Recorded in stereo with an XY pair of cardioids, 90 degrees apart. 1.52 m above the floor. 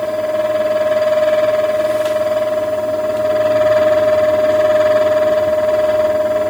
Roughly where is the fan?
Ahead.